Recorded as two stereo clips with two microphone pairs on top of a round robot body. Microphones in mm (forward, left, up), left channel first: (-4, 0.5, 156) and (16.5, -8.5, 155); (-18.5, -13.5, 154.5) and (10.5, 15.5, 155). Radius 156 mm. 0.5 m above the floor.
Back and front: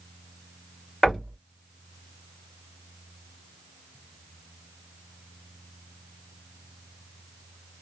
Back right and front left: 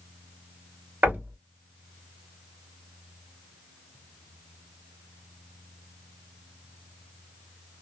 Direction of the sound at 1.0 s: 85° left.